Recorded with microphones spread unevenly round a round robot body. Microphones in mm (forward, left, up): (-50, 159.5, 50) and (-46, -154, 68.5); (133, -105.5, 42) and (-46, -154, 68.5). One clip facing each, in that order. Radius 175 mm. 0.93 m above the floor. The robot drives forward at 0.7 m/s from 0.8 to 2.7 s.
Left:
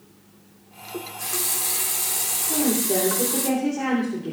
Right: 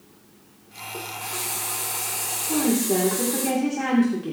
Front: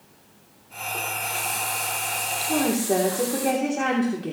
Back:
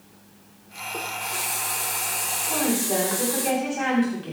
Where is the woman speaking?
20° right, 3 m.